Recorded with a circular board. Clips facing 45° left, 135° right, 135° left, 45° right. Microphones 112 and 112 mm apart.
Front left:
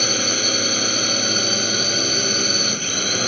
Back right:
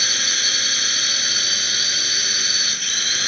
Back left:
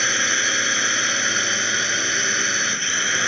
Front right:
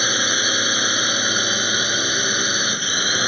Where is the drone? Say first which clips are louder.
Front left 8 dB, front right 1 dB; 25° left.